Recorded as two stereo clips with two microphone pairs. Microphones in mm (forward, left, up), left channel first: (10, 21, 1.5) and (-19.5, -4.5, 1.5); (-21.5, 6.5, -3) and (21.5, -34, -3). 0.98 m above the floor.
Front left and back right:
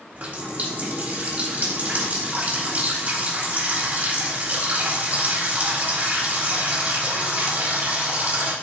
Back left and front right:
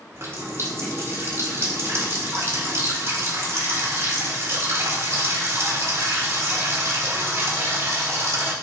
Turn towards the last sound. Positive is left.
turn(degrees=-90)